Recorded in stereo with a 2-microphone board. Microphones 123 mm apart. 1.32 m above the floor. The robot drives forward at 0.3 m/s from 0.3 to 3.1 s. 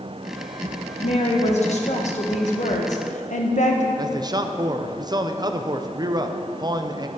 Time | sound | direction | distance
1.0 | a woman speaking | 60° left (ahead or behind) | 1.5 m
4.0 | a man speaking | 35° right (ahead or behind) | 0.6 m